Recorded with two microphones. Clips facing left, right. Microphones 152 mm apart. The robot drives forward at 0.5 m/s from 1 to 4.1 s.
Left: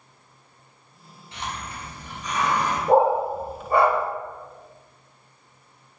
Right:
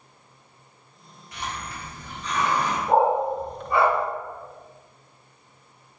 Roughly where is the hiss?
Left.